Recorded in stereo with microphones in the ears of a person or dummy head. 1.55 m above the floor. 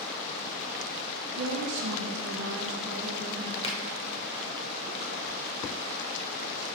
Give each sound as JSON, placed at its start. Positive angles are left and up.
{"t": 1.4, "sound": "a woman speaking", "side_deg": -70, "distance_m": 0.7}
{"t": 3.6, "sound": "a finger snap", "side_deg": 25, "distance_m": 0.8}